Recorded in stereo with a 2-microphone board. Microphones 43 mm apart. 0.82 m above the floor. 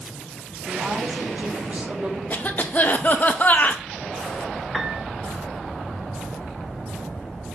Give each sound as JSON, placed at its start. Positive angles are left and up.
{"t": 0.7, "sound": "a woman speaking", "side_deg": -30, "distance_m": 1.3}
{"t": 2.3, "sound": "a cough", "side_deg": 40, "distance_m": 0.6}
{"t": 4.7, "sound": "a piano", "side_deg": -15, "distance_m": 0.6}